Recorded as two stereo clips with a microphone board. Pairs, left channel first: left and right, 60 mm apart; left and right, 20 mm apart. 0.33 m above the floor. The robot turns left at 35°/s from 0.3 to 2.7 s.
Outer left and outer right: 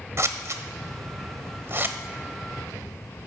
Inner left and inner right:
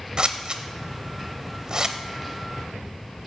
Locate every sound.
0.2 s scissors: 50° right (ahead or behind), 0.5 m; by 2.0 s 35° right (ahead or behind), 0.5 m